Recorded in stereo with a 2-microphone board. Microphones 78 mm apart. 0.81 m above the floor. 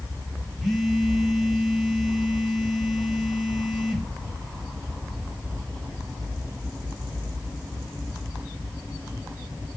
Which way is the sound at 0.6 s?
Centre (ahead or behind).